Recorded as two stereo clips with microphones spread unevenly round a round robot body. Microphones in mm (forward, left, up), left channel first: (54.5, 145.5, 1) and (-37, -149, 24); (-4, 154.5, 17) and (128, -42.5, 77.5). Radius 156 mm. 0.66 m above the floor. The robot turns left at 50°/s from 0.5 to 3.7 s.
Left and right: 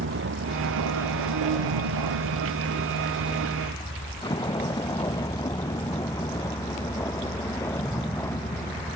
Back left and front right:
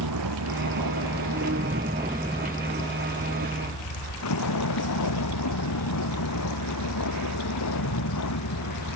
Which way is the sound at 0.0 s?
55° right.